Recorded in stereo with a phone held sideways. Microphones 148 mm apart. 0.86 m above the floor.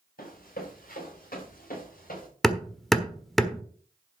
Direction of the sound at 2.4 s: Centre (ahead or behind).